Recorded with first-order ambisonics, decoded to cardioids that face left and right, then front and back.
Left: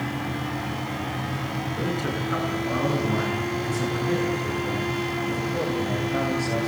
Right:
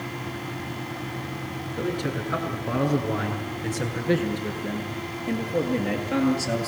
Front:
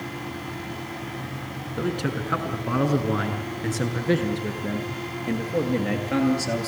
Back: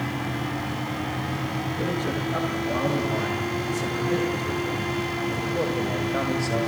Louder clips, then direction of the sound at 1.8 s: Right 1 dB, front 2 dB; 5° left.